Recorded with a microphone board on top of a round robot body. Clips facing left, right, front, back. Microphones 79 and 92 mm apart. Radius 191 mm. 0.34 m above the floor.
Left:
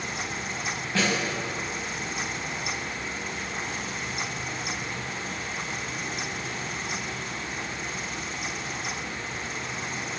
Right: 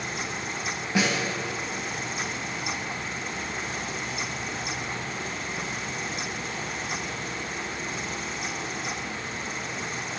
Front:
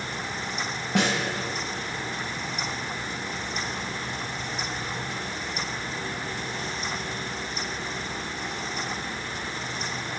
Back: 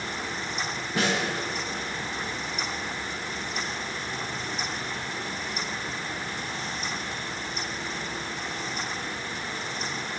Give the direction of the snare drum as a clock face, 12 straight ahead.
12 o'clock.